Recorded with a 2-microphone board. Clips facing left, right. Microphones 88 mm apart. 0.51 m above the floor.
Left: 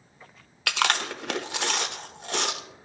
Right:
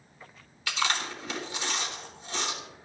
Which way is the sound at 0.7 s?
65° left (ahead or behind).